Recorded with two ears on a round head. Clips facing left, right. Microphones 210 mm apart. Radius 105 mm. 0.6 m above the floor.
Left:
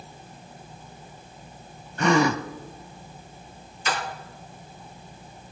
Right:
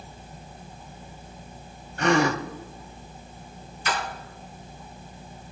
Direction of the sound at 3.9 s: 70° left (ahead or behind).